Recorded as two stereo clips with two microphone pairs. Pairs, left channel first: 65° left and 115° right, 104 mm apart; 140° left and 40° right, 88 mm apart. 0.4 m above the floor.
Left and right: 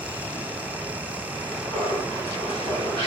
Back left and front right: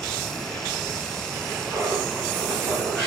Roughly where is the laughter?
Ahead left.